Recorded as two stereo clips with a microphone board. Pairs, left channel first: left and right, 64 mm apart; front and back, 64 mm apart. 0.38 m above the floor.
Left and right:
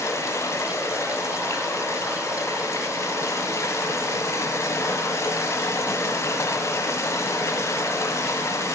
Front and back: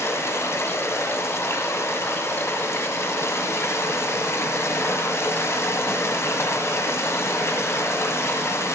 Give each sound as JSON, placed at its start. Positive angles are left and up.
{"t": 0.0, "sound": "running water", "azimuth_deg": 45, "distance_m": 1.4}